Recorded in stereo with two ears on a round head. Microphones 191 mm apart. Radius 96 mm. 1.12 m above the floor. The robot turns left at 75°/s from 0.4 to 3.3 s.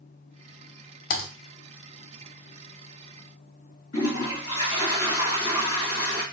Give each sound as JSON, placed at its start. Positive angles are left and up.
{"t": 1.1, "sound": "typing on a keyboard", "side_deg": 40, "distance_m": 0.7}
{"t": 3.9, "sound": "a toilet flushing", "side_deg": 70, "distance_m": 2.5}